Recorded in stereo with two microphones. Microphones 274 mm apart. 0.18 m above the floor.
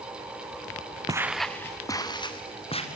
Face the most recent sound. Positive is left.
turn(degrees=20)  # may be behind; listen again after turning